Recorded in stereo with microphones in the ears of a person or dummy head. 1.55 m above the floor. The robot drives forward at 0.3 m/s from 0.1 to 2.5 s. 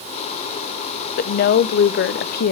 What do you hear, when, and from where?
1.2 s a woman speaking: 50° left (ahead or behind), 0.6 m; by 2.5 s 45° left (ahead or behind), 0.7 m